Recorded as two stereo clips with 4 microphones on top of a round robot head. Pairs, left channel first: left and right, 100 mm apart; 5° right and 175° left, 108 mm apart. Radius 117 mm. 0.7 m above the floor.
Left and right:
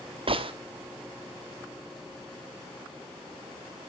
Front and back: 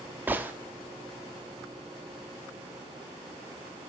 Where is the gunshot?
110° right, 1.5 m.